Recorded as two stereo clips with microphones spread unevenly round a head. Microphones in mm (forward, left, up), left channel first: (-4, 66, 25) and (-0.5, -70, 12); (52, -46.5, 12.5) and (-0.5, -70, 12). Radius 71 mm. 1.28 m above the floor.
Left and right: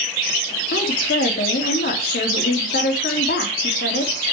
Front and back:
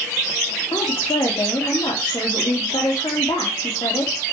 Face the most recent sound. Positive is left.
turn(degrees=70)